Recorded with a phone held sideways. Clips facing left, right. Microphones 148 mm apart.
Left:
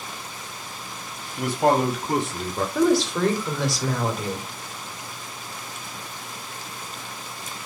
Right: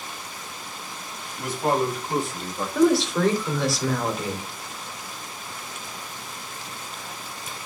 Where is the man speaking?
75° left (ahead or behind), 2.5 m.